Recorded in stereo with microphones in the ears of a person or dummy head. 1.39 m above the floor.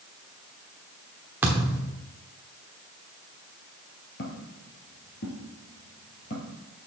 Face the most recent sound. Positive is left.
turn(degrees=40)  # may be behind; listen again after turning